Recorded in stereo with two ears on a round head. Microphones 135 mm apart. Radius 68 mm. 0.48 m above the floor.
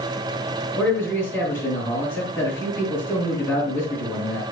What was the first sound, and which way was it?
A man speaking, 15° left (ahead or behind).